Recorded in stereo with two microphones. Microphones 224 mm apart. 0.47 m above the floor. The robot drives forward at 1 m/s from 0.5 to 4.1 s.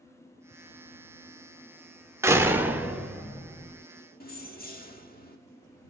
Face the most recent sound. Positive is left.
turn(degrees=45)  # may be behind; listen again after turning